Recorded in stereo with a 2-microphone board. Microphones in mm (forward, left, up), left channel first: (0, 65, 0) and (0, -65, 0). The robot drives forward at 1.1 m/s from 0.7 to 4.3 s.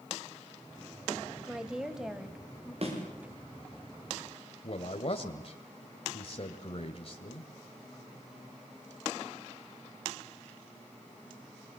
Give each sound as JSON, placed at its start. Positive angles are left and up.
{"t": 1.5, "sound": "a woman speaking", "side_deg": -5, "distance_m": 1.7}
{"t": 2.8, "sound": "a thud", "side_deg": -50, "distance_m": 9.0}
{"t": 4.6, "sound": "a man speaking", "side_deg": 50, "distance_m": 1.8}